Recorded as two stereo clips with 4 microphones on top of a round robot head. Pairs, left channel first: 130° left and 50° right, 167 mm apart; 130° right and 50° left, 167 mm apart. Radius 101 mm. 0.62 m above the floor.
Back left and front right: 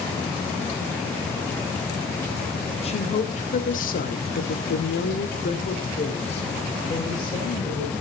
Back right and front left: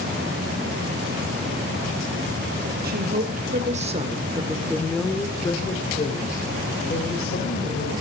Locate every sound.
2.8 s a woman speaking: 80° left, 3.5 m; by 7.9 s 160° right, 5.5 m